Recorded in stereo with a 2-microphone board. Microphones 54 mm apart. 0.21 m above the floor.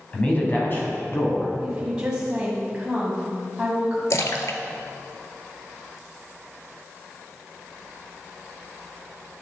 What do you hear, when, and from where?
0.1 s a man speaking: 20° left (ahead or behind), 1.4 m; by 1.5 s 55° left (ahead or behind), 2 m
1.6 s a woman speaking: 15° right (ahead or behind), 1.4 m
4.1 s a splash: 70° left (ahead or behind), 0.6 m